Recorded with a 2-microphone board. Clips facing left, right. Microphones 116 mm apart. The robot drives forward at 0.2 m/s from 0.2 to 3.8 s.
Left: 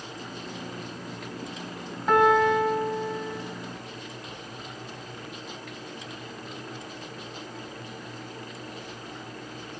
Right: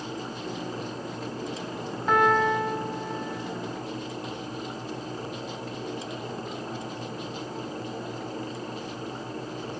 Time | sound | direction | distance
2.1 | a piano | centre (ahead or behind) | 1.4 m